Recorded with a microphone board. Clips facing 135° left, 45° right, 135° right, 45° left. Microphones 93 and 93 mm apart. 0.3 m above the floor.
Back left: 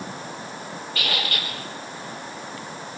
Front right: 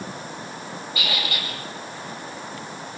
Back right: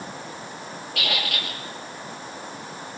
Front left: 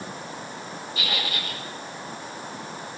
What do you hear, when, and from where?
0.9 s a squeak: 120° right, 6 m